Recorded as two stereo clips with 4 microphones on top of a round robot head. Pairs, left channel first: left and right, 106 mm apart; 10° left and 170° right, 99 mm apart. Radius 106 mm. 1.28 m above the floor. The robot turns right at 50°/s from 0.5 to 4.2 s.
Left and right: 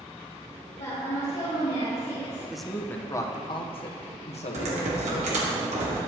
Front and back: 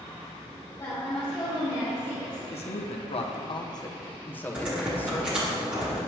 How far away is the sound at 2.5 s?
About 1.0 m.